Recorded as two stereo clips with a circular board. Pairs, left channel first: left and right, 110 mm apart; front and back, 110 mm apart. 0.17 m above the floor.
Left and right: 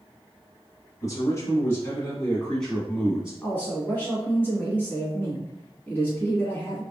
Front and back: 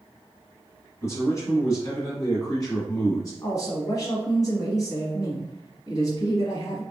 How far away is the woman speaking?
About 1.5 m.